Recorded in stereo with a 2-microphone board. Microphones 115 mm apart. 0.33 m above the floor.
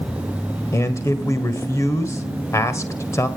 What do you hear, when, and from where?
0.7 s a man speaking: 25° left (ahead or behind), 1.6 m